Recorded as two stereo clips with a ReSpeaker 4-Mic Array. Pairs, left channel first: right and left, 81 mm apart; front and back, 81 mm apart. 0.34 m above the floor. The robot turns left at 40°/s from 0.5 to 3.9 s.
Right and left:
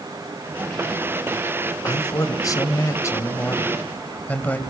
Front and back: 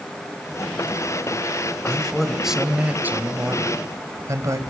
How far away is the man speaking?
About 2 m.